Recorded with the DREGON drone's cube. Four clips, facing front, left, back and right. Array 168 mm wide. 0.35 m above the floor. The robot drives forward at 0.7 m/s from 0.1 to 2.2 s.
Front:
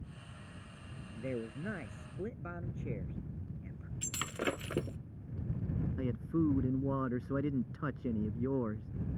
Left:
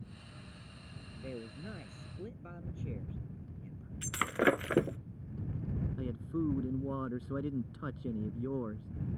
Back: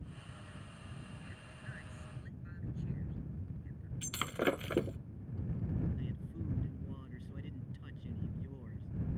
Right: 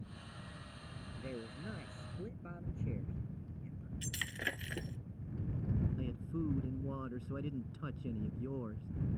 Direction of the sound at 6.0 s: 25° left.